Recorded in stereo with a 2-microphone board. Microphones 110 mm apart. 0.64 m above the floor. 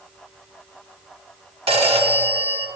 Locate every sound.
1.7 s a phone ringing: 60° right (ahead or behind), 1.1 m